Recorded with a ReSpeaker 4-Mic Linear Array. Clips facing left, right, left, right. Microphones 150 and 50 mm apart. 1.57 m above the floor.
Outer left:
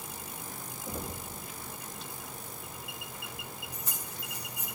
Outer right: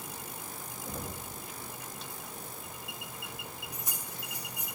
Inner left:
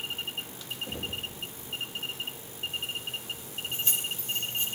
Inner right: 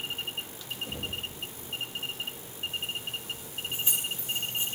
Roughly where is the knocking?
Centre.